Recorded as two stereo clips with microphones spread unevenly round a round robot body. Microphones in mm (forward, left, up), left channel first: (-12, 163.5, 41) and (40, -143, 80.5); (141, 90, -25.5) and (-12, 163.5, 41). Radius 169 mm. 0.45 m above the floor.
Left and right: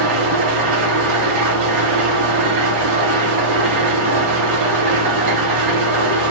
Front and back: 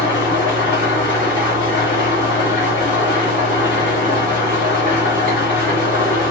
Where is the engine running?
60° right, 1.6 m.